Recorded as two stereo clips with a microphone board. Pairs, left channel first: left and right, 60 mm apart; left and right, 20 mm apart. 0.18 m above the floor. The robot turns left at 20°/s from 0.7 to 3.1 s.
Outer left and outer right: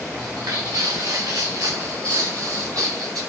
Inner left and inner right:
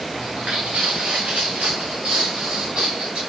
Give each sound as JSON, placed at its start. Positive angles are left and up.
{"t": 0.2, "sound": "footsteps", "side_deg": -70, "distance_m": 0.9}